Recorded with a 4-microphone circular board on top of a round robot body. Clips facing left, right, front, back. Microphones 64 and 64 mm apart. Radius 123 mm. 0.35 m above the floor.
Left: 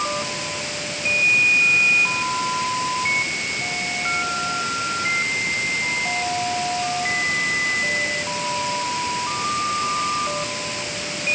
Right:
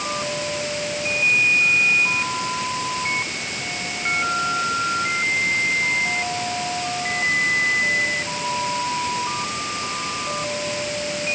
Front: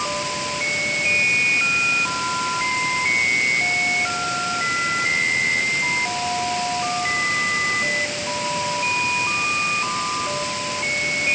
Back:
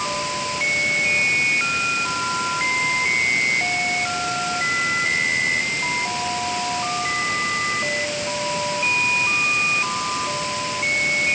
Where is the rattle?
I don't hear a rattle.